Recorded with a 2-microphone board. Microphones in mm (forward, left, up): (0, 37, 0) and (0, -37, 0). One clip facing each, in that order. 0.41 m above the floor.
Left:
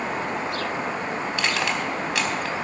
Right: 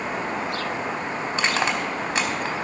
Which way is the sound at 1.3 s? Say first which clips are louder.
Right 3 dB; 25° right (ahead or behind).